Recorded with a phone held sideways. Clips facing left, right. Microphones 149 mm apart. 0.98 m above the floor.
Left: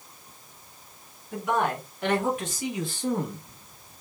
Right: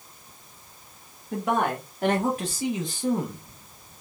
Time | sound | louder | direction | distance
1.3 | a man speaking | right 1 dB | 60° right (ahead or behind) | 1.4 m